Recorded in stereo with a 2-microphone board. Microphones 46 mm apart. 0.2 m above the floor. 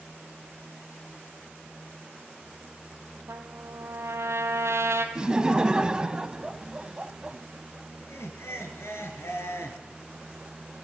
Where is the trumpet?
75° right (ahead or behind), 1.5 m.